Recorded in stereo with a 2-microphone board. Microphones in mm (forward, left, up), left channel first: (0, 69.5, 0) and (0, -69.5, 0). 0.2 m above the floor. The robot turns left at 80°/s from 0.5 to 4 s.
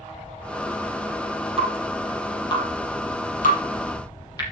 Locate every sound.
1.6 s dripping: 45° right (ahead or behind), 5.5 m; by 4.4 s 30° left (ahead or behind), 5.5 m